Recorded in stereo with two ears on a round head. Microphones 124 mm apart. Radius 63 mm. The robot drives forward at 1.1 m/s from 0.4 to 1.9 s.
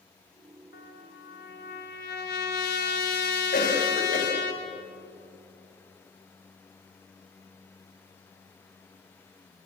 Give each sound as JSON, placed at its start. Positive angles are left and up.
{"t": 0.7, "sound": "a trumpet", "side_deg": 80, "distance_m": 3.0}
{"t": 3.5, "sound": "a cough", "side_deg": 55, "distance_m": 5.0}